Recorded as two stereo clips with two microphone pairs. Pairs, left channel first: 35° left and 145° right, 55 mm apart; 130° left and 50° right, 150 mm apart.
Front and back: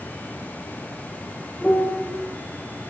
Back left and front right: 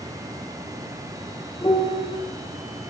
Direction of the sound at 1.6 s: 90° left.